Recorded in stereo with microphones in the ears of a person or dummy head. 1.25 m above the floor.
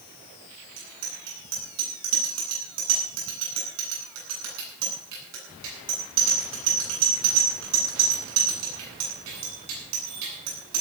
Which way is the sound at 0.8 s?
80° right.